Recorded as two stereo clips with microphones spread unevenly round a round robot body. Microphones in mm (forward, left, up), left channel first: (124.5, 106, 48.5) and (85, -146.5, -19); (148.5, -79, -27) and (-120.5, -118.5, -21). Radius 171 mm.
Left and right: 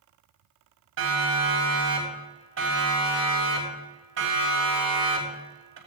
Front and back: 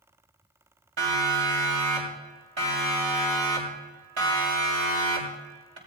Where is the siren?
150° right, 7 m; by 5.8 s 145° right, 4.5 m.